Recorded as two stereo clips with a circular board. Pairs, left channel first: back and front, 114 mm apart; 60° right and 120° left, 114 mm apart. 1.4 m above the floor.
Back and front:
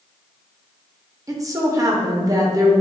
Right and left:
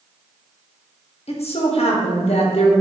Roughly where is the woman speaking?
Ahead right.